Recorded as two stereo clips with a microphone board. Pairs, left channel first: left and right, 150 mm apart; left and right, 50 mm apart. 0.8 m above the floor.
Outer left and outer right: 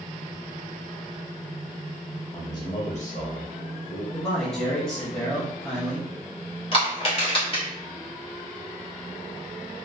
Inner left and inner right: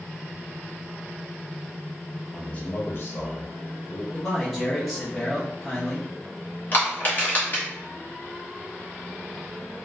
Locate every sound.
2.3 s a man speaking: 15° left (ahead or behind), 1.3 m; by 4.0 s 60° left (ahead or behind), 2.0 m
4.1 s a man speaking: 5° left (ahead or behind), 1.0 m
6.7 s crushing: 40° left (ahead or behind), 1.4 m